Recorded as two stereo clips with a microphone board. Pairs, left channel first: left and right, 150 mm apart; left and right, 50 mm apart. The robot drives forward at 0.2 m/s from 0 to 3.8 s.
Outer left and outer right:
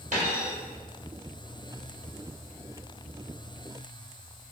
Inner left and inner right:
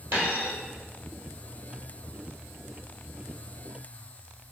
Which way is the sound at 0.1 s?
55° right (ahead or behind).